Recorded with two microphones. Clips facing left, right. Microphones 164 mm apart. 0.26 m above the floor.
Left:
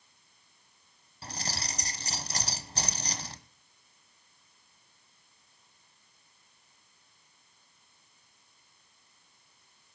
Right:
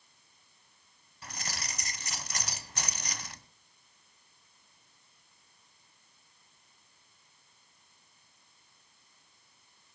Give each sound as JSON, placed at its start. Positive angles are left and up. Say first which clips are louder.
{"t": 1.2, "sound": "keys jangling", "louder": "left 4 dB", "side_deg": 35, "distance_m": 1.2}